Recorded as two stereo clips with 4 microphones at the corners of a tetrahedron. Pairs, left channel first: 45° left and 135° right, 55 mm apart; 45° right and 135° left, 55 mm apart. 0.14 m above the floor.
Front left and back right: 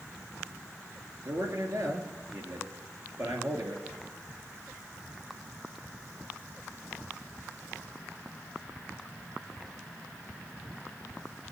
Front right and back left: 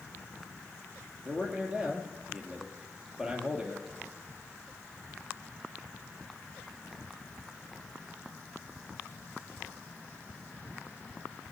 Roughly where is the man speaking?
Behind right.